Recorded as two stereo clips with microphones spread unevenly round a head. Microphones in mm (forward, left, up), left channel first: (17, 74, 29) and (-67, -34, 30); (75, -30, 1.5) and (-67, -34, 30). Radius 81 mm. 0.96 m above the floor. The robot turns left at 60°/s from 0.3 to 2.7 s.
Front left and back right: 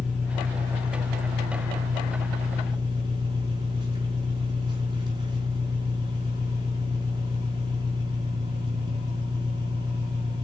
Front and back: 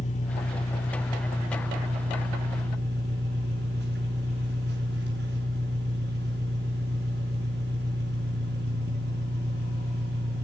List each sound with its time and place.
0.0 s an engine running: 45° right, 5.5 m; by 10.4 s 175° left, 5.5 m